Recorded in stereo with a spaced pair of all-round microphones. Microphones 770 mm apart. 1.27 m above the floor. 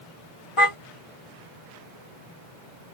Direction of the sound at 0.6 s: 40° left (ahead or behind).